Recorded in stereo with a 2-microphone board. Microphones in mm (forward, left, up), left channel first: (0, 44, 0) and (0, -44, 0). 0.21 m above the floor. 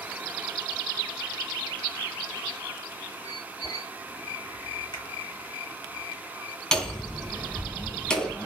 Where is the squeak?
60° left (ahead or behind), 2.5 m.